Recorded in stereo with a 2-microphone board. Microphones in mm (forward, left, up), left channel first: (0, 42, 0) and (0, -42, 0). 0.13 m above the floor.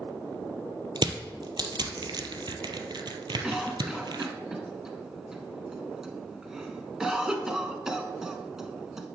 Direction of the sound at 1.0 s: 60° right (ahead or behind).